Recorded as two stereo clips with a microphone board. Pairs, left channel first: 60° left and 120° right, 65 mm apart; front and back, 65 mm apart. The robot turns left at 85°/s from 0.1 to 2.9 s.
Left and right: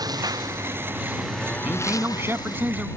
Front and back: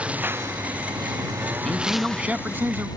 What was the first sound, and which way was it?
A lawn mower, 110° right.